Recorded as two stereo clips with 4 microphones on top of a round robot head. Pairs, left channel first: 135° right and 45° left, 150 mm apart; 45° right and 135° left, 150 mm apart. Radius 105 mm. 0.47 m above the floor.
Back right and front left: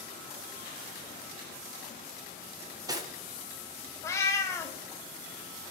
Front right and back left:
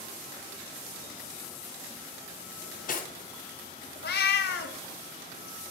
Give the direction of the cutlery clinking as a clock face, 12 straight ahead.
1 o'clock.